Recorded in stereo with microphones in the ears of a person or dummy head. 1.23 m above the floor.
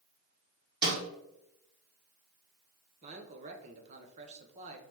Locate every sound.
0.8 s a snare drum: 60° right (ahead or behind), 1.7 m
3.0 s a man speaking: 35° right (ahead or behind), 0.7 m